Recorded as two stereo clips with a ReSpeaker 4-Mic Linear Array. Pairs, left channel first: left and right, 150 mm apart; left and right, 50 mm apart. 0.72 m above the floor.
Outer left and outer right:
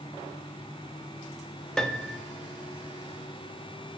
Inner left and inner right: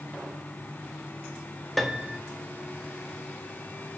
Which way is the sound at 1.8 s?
5° left (ahead or behind).